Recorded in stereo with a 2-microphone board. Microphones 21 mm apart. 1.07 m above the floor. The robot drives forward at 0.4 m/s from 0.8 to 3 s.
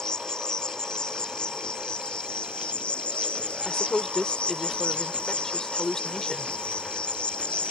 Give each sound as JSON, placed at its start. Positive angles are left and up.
{"t": 0.0, "sound": "an insect", "side_deg": 45}
{"t": 3.6, "sound": "a woman speaking", "side_deg": 20}